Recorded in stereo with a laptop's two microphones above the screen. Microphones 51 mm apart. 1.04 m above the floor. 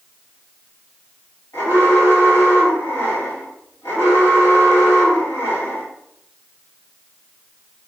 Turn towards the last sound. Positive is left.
turn(degrees=80)